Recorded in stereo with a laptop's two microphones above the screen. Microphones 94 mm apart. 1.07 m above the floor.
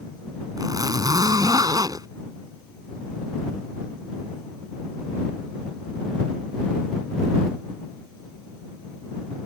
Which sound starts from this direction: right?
A zipper, at 0.6 s.